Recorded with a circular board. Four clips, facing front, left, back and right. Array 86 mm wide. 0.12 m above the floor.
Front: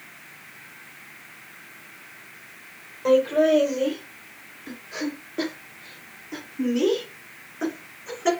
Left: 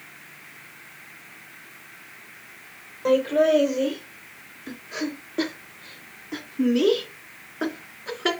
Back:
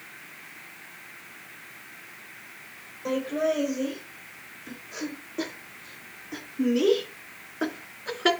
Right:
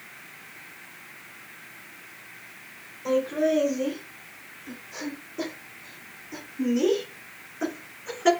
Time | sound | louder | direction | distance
3.0 | laughter | left 5 dB, front 8 dB | 60° left | 4 m